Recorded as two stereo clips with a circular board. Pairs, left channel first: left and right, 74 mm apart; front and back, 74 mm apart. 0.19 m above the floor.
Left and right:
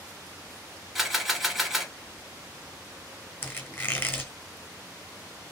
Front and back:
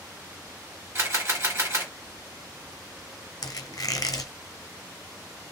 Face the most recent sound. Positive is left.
turn(degrees=30)